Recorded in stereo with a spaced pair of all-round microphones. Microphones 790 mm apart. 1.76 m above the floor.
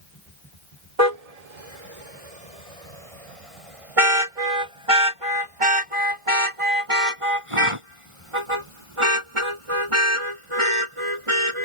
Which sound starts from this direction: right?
A car horn, at 1.0 s.